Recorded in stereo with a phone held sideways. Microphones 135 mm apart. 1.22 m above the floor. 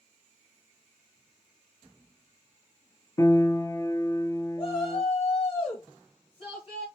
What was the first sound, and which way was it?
A piano, 25° left (ahead or behind).